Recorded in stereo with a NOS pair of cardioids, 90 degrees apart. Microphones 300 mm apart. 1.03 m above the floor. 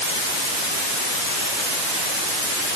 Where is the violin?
No violin in this recording.